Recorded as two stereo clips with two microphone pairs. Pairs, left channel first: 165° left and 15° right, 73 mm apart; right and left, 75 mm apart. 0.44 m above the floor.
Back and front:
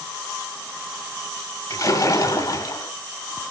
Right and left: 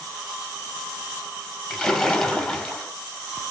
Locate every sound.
1.7 s a splash: 175° right, 2.5 m